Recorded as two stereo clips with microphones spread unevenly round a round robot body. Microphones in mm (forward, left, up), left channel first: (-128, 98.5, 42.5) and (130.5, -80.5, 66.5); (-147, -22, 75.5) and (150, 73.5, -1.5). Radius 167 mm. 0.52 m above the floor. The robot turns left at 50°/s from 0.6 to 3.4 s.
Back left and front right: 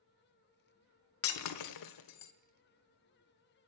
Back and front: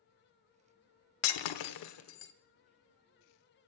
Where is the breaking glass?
170° right, 1.0 m; by 2.3 s 135° left, 1.0 m.